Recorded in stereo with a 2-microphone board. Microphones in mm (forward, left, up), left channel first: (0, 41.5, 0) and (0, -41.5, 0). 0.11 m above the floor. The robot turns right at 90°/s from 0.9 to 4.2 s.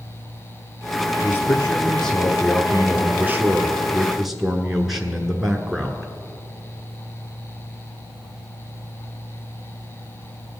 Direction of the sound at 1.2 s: 20° left (ahead or behind).